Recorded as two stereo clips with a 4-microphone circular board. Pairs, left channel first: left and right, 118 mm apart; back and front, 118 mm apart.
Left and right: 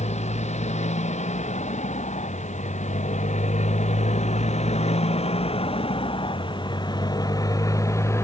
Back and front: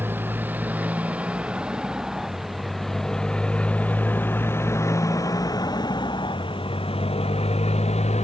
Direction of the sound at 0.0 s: 75° left.